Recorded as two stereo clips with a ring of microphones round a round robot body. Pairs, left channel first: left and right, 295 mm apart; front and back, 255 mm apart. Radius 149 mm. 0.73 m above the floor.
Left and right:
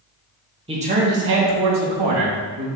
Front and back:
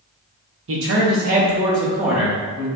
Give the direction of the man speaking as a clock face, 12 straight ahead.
5 o'clock.